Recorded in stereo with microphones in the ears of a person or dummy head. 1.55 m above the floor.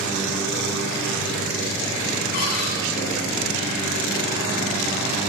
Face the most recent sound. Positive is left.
turn(degrees=50)  # may be behind; listen again after turning